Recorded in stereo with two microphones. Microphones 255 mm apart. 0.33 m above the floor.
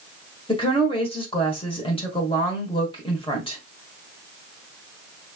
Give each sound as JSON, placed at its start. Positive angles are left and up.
{"t": 0.5, "sound": "a woman speaking", "side_deg": 20, "distance_m": 1.4}